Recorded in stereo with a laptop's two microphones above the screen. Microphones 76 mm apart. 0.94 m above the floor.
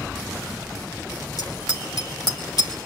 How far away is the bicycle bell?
About 3 m.